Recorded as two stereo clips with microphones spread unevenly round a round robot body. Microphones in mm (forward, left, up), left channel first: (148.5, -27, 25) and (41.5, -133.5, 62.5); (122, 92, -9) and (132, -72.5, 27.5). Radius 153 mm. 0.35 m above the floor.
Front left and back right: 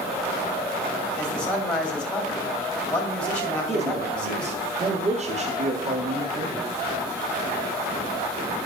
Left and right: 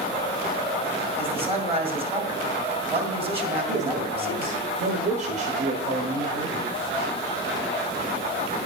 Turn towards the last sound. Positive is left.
turn(degrees=-115)